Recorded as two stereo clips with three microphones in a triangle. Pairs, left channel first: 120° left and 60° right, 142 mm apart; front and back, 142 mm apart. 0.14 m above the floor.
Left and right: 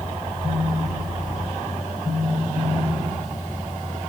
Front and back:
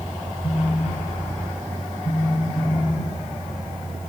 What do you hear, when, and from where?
0.4 s a phone buzzing: 20° left, 1.6 m